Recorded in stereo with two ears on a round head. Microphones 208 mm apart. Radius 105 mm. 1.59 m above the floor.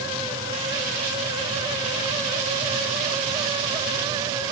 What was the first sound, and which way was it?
Only background noise.